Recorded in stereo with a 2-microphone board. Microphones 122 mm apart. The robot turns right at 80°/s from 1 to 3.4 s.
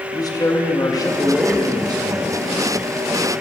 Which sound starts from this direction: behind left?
A man speaking, at 0.1 s.